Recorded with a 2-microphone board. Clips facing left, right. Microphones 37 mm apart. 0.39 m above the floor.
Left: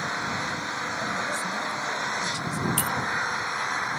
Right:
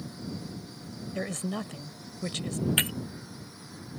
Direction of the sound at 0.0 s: 75° left (ahead or behind).